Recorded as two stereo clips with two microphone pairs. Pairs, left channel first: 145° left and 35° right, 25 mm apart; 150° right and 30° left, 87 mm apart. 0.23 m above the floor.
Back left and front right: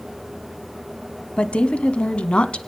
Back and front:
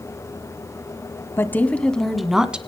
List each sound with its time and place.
1.4 s a woman speaking: 155° left, 1.5 m; by 2.6 s 105° left, 1.8 m